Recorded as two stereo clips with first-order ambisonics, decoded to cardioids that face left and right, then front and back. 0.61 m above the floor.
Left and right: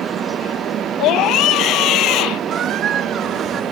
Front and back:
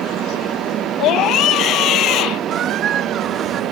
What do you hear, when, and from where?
1.0 s a scream: 45° left
2.5 s a squeak: 135° right